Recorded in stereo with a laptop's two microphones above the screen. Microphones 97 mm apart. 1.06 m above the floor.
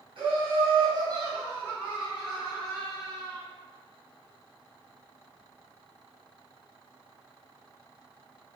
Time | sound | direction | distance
0.2 | laughter | 60° right (ahead or behind) | 1.1 m